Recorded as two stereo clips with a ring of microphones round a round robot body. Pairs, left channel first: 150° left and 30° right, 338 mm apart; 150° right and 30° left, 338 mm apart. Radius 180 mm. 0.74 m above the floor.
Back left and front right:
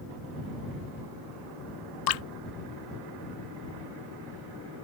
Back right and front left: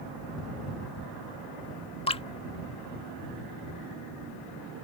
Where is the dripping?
135° left.